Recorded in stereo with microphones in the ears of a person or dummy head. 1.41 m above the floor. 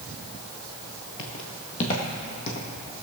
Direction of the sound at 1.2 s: 25° left (ahead or behind).